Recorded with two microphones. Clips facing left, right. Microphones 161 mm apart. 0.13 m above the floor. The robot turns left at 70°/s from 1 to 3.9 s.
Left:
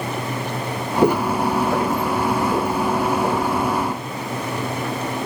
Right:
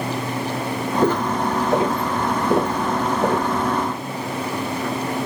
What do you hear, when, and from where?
1.0 s footsteps: 15° left (ahead or behind), 0.9 m; by 3.5 s 55° right (ahead or behind), 2 m